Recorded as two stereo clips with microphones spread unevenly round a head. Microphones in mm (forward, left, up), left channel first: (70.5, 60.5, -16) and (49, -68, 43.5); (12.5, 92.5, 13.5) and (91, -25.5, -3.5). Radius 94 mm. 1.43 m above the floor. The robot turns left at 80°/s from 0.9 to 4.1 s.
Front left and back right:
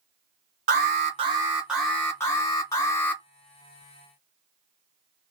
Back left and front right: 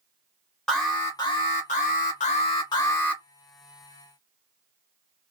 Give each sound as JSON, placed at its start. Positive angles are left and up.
{"t": 0.7, "sound": "an alarm", "azimuth_deg": -145, "distance_m": 1.2}